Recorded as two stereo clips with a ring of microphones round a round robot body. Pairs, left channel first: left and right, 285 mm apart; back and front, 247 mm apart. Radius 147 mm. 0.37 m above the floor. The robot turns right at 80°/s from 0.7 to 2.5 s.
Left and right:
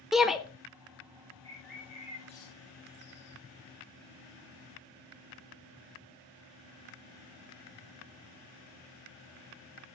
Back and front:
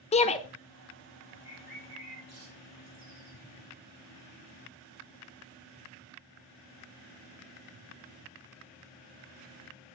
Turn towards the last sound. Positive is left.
turn(degrees=35)